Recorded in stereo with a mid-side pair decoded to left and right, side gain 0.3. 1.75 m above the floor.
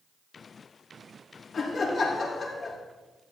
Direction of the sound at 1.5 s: 65° left.